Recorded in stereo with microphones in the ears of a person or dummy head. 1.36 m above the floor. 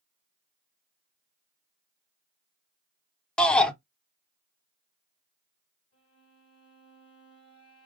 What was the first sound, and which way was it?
A shout, 5° left (ahead or behind).